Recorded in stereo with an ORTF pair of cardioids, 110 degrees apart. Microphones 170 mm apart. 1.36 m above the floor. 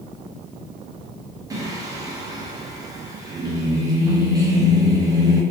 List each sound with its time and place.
1.5 s singing: 20° right, 0.9 m